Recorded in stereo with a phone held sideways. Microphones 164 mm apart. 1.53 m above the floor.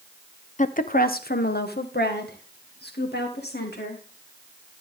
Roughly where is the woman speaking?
Left.